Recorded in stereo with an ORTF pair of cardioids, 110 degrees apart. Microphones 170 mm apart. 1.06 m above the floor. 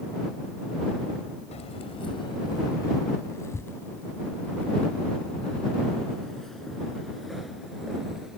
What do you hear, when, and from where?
1.5 s keys jangling: 40° left; by 8.4 s straight ahead